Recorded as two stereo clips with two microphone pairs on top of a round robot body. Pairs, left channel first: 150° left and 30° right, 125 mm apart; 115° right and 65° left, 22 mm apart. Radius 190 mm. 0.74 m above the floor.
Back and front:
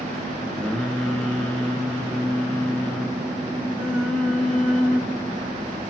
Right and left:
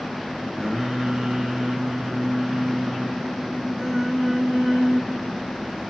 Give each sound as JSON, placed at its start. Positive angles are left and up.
{"t": 0.6, "sound": "singing", "azimuth_deg": 65, "distance_m": 0.9}